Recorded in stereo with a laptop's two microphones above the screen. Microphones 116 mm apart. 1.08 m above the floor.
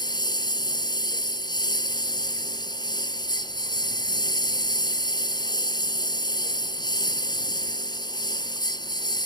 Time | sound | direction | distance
0.0 | a lawn mower | 40° left (ahead or behind) | ?